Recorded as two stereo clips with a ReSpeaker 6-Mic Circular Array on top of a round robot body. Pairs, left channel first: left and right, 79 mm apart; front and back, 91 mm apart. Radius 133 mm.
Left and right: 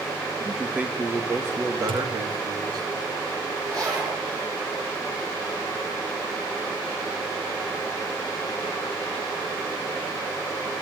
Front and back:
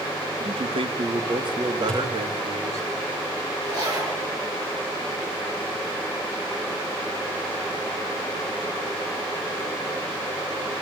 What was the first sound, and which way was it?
A man speaking, 175° right.